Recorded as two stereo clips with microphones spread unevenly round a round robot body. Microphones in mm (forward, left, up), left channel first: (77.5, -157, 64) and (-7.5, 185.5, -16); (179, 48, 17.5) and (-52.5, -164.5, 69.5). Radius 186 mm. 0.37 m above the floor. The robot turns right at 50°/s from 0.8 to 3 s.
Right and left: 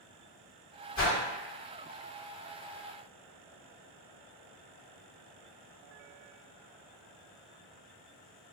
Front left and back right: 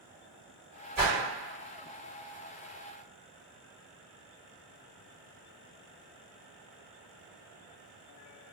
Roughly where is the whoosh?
Right.